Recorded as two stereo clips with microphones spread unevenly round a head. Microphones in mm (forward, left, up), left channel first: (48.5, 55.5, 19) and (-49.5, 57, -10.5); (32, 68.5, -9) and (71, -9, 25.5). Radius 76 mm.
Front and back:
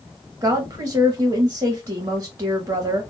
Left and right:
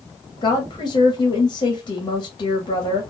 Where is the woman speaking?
130° left, 1.0 m.